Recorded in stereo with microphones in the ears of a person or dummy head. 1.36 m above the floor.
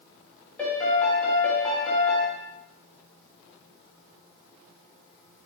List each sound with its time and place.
0.6 s a piano: 5° left (ahead or behind), 0.5 m